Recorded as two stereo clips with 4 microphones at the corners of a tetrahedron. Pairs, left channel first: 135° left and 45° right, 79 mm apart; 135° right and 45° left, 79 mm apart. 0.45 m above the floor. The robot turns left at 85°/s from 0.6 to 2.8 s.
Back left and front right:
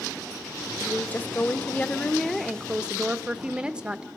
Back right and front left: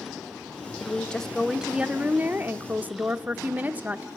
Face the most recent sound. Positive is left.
turn(degrees=15)